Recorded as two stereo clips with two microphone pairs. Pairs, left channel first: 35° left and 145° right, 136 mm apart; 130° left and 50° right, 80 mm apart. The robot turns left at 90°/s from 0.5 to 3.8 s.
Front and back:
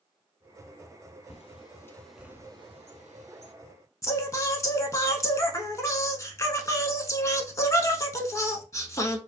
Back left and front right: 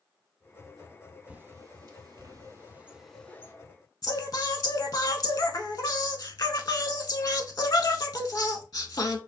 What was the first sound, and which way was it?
A bird, 20° left.